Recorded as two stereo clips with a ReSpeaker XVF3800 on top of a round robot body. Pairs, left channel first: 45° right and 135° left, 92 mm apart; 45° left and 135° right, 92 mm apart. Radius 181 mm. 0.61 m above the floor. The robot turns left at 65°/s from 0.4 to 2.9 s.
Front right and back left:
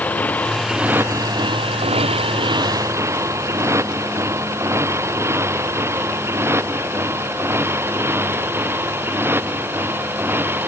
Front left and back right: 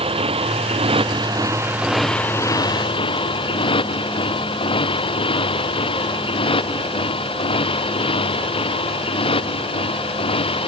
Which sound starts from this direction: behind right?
A motorcycle, at 0.0 s.